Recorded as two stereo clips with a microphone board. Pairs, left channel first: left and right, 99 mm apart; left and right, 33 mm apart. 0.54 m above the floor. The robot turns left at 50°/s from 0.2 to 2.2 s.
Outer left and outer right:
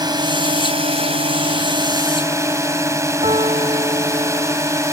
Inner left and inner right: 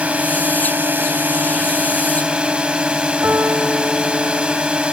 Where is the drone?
50° right; by 4.9 s 150° right.